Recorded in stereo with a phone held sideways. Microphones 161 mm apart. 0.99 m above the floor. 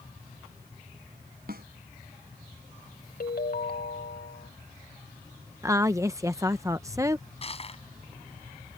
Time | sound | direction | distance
1.5 | a snare drum | 70° right (ahead or behind) | ?
3.2 | a ringtone | 70° left (ahead or behind) | ?
5.6 | a woman speaking | 20° right (ahead or behind) | ?
7.4 | crushing | 40° left (ahead or behind) | ?